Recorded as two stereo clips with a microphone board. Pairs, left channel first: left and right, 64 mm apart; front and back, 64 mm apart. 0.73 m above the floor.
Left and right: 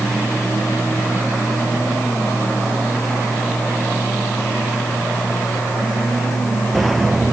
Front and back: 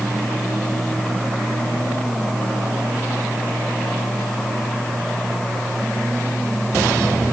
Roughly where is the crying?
I don't hear crying.